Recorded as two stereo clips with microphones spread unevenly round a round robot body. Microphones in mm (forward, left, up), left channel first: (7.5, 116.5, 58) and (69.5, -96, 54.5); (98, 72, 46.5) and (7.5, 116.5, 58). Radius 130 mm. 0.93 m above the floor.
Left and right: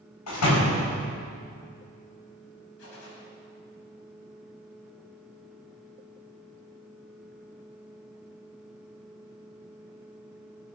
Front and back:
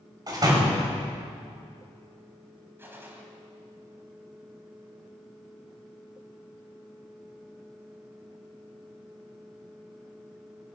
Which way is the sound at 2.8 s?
85° left.